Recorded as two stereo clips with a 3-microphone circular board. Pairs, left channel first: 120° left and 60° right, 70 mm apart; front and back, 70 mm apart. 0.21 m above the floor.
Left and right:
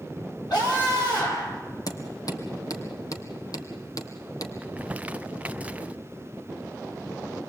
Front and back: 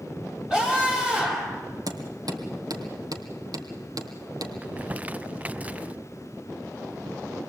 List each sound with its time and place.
0.5 s a scream: 95° left, 9.5 m
1.9 s hammering: 150° left, 2.5 m
4.6 s crumpling: 120° right, 0.5 m